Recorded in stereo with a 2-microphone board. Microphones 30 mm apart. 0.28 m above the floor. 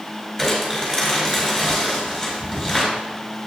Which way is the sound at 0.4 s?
Centre (ahead or behind).